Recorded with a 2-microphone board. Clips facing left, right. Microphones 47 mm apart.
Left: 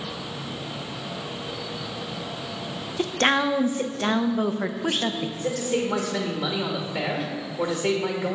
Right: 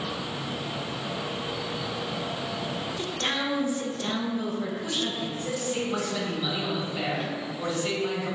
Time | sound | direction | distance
3.0 | a woman speaking | 55° left (ahead or behind) | 0.5 m
5.4 | a man speaking | 75° left (ahead or behind) | 1.3 m